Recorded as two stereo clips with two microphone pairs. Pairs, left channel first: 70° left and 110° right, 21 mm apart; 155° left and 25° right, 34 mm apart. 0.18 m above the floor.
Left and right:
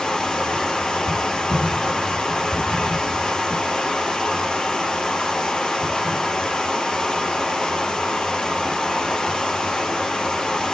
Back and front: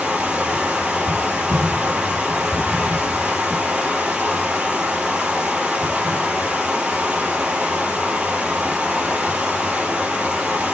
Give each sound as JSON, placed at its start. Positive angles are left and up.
{"t": 0.0, "sound": "running water", "azimuth_deg": 40, "distance_m": 4.0}